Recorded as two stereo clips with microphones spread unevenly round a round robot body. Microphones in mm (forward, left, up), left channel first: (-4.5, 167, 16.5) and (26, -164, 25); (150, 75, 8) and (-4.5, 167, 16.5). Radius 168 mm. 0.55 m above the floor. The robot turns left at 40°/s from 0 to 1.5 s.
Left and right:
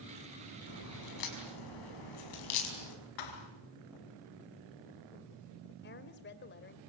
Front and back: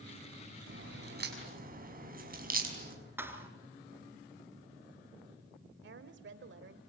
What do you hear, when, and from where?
0.7 s a crack: 145° left, 5.5 m; by 3.0 s 115° left, 5.5 m
3.2 s a thud: 70° left, 3 m
5.8 s a woman speaking: 155° left, 2.0 m